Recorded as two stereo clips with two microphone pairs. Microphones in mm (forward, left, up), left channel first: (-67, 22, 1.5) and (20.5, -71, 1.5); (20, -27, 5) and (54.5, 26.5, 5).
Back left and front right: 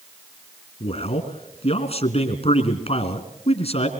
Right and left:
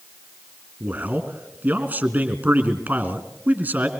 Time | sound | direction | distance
0.8 | a man speaking | 115° left | 2.5 m